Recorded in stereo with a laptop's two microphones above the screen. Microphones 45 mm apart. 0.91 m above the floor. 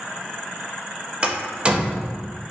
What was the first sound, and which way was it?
A door slam, 25° right (ahead or behind).